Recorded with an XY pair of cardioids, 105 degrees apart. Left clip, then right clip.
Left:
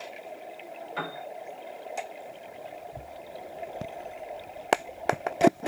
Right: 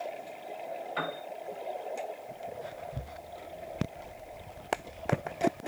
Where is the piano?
5° right, 4 m.